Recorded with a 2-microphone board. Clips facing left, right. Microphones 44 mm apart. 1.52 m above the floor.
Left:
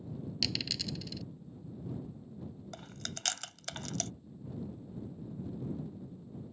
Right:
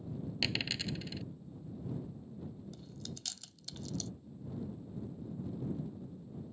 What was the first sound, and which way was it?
A dropped coin, 30° right (ahead or behind).